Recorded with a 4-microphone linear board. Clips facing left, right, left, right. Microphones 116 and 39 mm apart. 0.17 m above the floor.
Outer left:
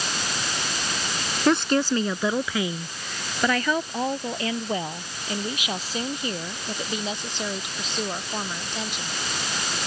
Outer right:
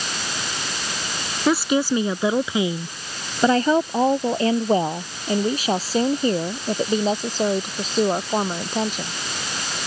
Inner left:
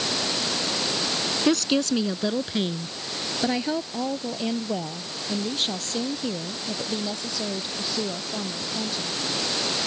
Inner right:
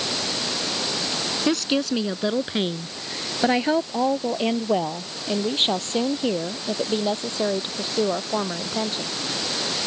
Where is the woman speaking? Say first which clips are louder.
Outer right 1 dB, inner left 1 dB; 5° right (ahead or behind); by 9.1 s 45° right (ahead or behind).